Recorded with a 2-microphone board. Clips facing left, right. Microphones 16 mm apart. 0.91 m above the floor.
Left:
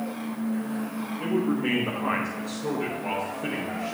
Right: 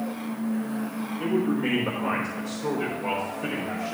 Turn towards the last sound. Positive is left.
turn(degrees=-65)  # may be behind; listen again after turning